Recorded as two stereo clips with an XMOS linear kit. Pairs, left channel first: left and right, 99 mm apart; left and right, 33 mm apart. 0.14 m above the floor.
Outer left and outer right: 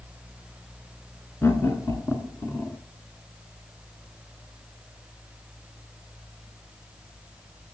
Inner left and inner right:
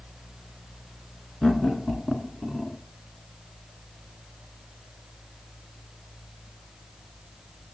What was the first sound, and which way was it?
Laughter, 30° left (ahead or behind).